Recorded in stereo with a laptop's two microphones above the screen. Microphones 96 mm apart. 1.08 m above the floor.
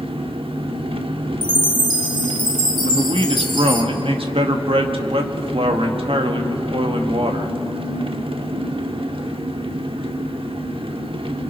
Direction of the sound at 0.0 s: 70° right (ahead or behind).